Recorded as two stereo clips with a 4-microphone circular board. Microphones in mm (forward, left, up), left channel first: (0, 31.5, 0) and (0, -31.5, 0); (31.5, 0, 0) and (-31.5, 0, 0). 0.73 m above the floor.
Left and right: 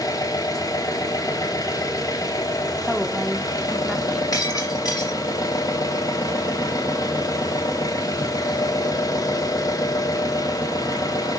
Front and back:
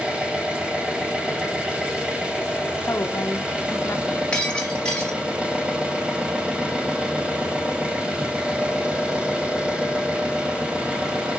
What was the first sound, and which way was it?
An engine running, 105° left.